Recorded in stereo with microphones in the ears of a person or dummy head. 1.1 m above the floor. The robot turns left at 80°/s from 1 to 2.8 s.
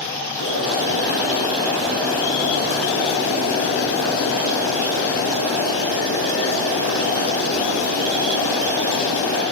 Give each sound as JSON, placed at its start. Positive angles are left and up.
{"t": 0.4, "sound": "boiling", "azimuth_deg": -105, "distance_m": 3.0}